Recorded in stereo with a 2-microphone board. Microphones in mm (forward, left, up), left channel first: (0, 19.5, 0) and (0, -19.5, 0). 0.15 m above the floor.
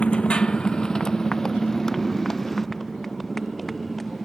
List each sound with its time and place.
0.0 s a motorcycle: 30° left (ahead or behind); by 4.3 s 5° left (ahead or behind)